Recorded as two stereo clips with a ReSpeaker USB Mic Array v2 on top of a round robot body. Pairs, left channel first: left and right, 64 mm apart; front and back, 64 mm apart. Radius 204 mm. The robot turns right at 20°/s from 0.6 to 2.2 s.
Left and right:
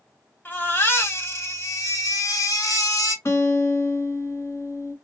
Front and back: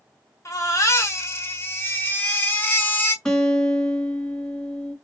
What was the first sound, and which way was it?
A baby crying, 30° left.